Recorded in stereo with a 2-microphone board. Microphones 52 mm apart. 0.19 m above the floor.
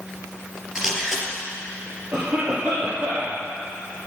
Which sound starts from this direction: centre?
A camera shutter, at 0.8 s.